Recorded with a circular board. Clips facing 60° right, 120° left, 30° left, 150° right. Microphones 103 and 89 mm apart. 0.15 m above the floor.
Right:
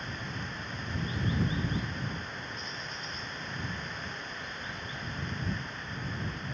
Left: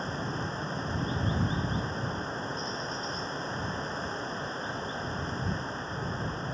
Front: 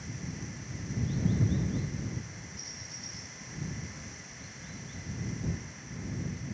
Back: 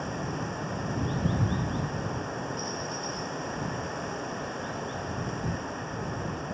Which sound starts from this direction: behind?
Running water, at 0.0 s.